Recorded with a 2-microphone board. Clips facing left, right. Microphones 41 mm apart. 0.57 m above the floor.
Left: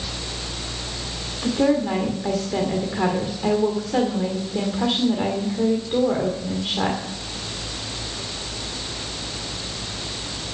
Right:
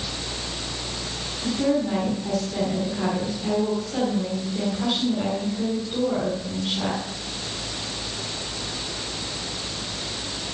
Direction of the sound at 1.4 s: 45° left (ahead or behind).